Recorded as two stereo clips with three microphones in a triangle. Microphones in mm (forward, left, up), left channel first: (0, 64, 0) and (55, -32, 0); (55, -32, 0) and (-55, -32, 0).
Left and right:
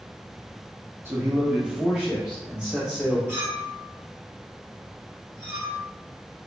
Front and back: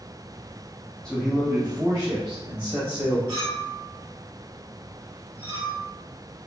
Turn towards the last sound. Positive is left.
turn(degrees=-125)